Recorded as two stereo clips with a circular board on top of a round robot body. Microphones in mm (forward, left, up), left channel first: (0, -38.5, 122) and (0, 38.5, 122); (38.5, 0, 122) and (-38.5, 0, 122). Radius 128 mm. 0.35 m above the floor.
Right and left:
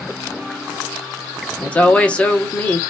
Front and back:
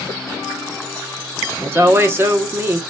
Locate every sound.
1.6 s a woman speaking: 150° right, 0.9 m